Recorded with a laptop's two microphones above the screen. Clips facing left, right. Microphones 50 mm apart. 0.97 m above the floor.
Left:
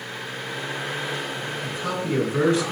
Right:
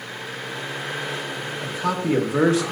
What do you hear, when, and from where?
1.6 s a man speaking: 75° right (ahead or behind), 1.4 m